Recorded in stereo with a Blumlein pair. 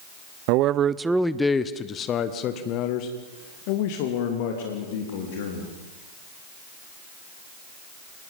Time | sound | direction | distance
0.5 | a man speaking | 45° right | 0.8 m